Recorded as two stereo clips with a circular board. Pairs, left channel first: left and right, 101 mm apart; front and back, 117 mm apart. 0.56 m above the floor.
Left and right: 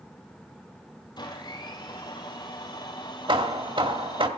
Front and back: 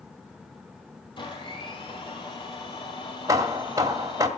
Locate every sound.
1.2 s a blender: 45° left, 3 m
3.3 s hammering: 120° right, 1.6 m